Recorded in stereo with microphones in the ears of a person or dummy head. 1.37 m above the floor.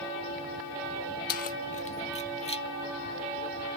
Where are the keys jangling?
45° left (ahead or behind); by 2.6 s 25° left (ahead or behind).